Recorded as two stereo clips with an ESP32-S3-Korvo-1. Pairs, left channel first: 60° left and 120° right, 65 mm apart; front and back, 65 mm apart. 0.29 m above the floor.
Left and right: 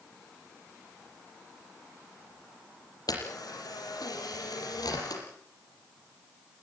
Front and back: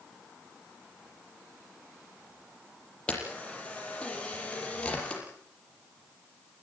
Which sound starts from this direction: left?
A camera shutter, at 3.1 s.